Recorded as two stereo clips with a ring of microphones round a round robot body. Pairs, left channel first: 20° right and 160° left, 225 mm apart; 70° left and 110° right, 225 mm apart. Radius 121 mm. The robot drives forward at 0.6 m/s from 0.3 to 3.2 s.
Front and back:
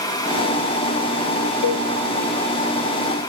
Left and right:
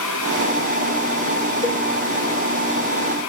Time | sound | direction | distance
1.6 | a cowbell | 5° right | 0.8 m